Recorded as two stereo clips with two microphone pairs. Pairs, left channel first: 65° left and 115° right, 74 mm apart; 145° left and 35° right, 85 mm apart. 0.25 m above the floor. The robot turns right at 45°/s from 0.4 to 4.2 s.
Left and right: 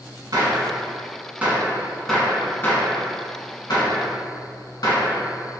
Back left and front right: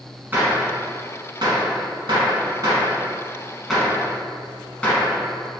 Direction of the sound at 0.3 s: 100° right.